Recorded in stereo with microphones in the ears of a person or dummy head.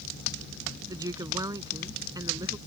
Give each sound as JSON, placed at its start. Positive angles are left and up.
{"t": 0.9, "sound": "a woman speaking", "side_deg": -20}